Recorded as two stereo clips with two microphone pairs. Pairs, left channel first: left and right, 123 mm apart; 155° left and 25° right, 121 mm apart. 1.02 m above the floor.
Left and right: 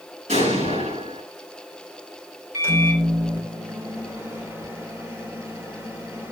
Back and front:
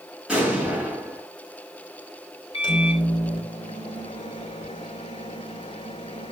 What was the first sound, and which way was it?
An explosion, 110° right.